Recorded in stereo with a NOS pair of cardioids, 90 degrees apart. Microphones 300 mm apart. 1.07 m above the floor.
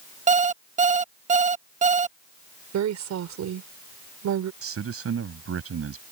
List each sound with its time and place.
0.3 s an alarm clock: 25° right
2.7 s a woman speaking: 65° right
4.6 s a man speaking: 50° right